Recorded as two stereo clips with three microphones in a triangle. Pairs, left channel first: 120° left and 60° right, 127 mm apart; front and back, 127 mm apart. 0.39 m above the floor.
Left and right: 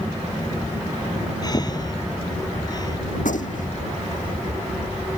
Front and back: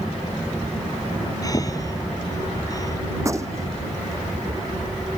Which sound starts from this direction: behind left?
A gunshot, at 3.2 s.